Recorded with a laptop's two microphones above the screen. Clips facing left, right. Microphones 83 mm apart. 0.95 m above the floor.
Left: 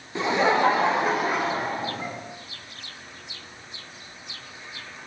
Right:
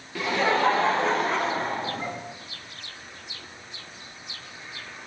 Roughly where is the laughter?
Left.